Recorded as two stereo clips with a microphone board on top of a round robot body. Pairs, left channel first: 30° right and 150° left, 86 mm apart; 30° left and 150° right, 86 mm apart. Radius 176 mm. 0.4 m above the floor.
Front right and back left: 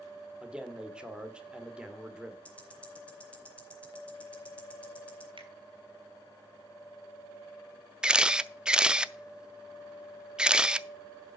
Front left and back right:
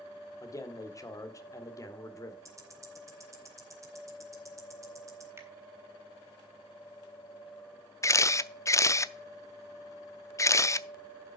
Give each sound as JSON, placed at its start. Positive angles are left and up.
{"t": 0.4, "sound": "a man speaking", "azimuth_deg": 75, "distance_m": 2.0}
{"t": 2.5, "sound": "ticking", "azimuth_deg": -105, "distance_m": 2.5}
{"t": 5.4, "sound": "a finger snap", "azimuth_deg": 150, "distance_m": 2.5}
{"t": 8.0, "sound": "a camera shutter", "azimuth_deg": 75, "distance_m": 0.7}